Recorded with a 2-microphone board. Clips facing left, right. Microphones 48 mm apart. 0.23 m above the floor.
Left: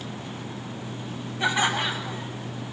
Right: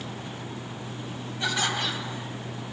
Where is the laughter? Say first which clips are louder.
Left 4 dB; 20° left (ahead or behind), 1.0 m.